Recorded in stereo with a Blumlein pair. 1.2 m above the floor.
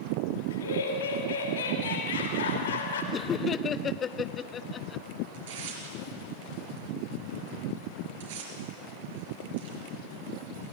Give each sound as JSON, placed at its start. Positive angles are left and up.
{"t": 0.5, "sound": "laughter", "azimuth_deg": 65, "distance_m": 5.5}
{"t": 3.1, "sound": "laughter", "azimuth_deg": 20, "distance_m": 0.8}
{"t": 5.3, "sound": "tearing paper", "azimuth_deg": -55, "distance_m": 5.0}